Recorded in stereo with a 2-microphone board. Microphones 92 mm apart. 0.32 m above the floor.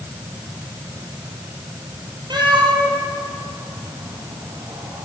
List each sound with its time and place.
2.3 s a cat meowing: 55° right (ahead or behind), 2.0 m; by 5.0 s 65° right (ahead or behind), 3.5 m